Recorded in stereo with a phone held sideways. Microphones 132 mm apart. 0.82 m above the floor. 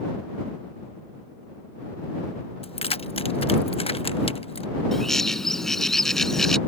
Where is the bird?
Centre (ahead or behind).